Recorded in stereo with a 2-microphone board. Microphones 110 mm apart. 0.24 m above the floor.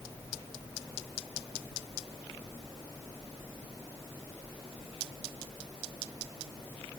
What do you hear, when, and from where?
Only background noise.